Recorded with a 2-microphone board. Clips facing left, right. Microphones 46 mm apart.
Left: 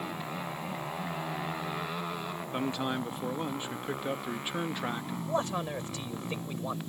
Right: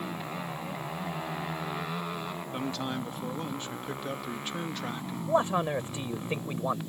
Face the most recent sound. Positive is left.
turn(degrees=-20)  # may be behind; listen again after turning